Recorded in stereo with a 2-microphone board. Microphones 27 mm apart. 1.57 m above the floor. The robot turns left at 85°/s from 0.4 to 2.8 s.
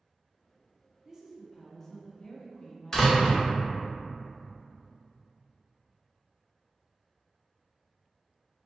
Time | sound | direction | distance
1.1 | a woman speaking | 140° right | 0.6 m
2.9 | a door slam | 20° left (ahead or behind) | 0.9 m